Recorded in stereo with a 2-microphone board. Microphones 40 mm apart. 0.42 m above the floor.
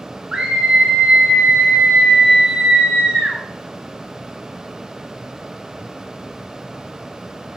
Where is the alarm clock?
No alarm clock in this recording.